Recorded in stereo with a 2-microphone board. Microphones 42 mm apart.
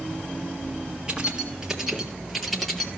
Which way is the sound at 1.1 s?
20° right (ahead or behind).